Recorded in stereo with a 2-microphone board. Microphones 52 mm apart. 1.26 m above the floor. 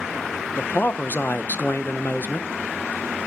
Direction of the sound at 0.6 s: 40° left (ahead or behind).